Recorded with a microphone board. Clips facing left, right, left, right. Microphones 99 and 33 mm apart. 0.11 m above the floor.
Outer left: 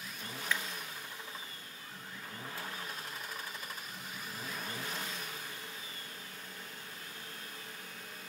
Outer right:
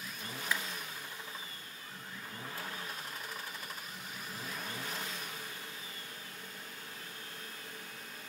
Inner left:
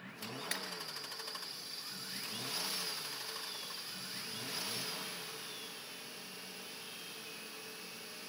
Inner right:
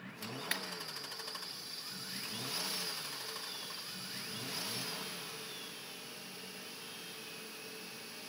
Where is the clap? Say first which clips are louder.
Even, inner right 3 dB; 10° right (ahead or behind), 1.9 m.